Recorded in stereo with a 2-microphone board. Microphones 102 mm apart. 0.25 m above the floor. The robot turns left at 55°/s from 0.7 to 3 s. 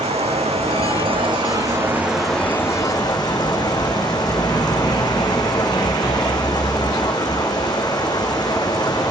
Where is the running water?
95° right, 3.5 m; by 9.1 s 140° left, 3.5 m.